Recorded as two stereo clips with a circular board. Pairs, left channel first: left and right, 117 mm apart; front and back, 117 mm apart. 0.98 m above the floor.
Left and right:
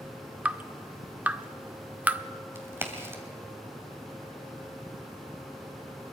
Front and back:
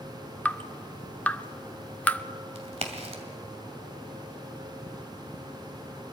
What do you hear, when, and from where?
0.5 s dripping: 45° right, 0.6 m
2.5 s a crack: 160° right, 2.5 m